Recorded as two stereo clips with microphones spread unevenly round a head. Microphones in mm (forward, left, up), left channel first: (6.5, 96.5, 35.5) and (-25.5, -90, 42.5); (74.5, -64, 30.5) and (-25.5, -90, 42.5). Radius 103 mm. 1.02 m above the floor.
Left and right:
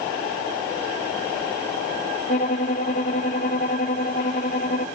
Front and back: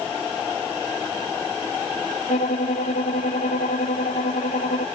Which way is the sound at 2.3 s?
25° left.